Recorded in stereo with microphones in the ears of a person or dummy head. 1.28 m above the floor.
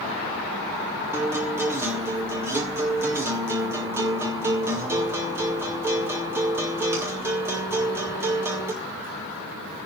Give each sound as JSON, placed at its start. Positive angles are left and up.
{"t": 1.1, "sound": "a guitar", "side_deg": -20, "distance_m": 0.6}